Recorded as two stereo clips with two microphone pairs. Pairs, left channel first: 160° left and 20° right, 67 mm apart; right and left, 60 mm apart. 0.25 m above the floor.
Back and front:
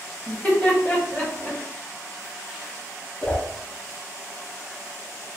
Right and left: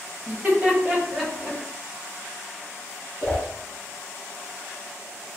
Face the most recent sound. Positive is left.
turn(degrees=-145)